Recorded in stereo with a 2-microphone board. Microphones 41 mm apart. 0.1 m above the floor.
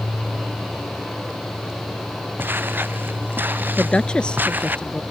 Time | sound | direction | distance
2.4 | footsteps | 50° right (ahead or behind) | ?
3.8 | a woman speaking | 20° left (ahead or behind) | ?